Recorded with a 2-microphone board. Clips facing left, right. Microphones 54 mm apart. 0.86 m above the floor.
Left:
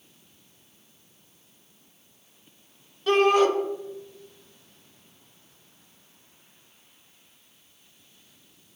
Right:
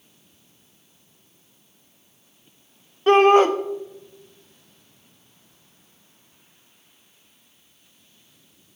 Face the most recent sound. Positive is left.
turn(degrees=-35)  # may be behind; listen again after turning